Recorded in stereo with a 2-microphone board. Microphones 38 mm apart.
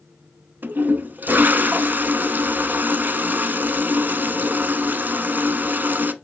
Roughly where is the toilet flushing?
Right.